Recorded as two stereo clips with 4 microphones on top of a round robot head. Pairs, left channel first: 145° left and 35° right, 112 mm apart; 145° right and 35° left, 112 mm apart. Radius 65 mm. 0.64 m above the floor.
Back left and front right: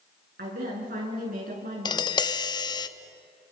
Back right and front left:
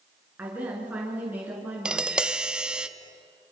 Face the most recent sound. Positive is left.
turn(degrees=115)